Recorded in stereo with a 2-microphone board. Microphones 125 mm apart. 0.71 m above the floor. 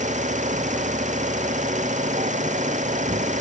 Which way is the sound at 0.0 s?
75° right (ahead or behind).